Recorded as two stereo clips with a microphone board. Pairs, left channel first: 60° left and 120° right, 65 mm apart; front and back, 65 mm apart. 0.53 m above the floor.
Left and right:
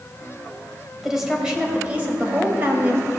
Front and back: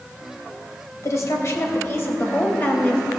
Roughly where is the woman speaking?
Ahead right.